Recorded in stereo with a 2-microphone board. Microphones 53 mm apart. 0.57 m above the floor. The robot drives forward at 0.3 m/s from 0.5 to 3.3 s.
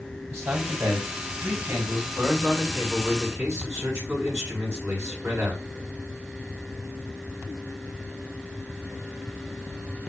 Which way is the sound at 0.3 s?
65° right (ahead or behind).